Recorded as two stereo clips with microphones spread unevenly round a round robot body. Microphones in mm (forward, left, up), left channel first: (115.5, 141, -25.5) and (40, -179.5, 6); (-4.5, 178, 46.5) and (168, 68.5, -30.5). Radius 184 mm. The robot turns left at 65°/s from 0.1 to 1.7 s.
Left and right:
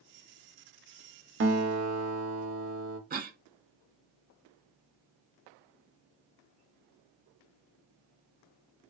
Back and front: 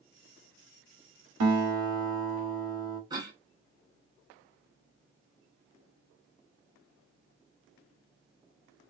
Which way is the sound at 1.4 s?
50° right.